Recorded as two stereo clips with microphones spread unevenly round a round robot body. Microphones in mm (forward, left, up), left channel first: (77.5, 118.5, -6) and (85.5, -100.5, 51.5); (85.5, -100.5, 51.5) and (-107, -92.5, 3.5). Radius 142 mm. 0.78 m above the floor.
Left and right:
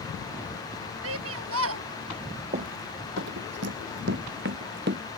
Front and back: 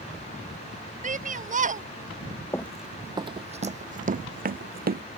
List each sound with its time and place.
1.0 s a shout: 135° right
2.5 s running footsteps: 65° right; by 5.0 s 140° right